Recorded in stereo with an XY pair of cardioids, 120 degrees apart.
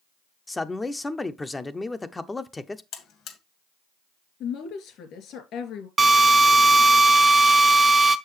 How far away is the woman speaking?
About 2.5 m.